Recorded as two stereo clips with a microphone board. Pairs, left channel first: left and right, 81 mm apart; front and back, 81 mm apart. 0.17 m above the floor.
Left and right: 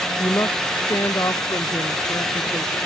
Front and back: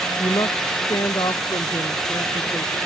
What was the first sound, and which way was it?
A woman speaking, 35° left.